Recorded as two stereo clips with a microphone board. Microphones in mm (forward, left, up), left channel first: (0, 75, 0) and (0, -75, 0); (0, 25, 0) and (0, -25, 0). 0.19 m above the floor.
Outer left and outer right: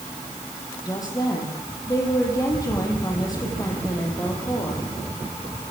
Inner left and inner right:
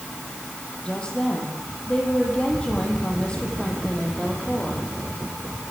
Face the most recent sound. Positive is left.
turn(degrees=25)  # may be behind; listen again after turning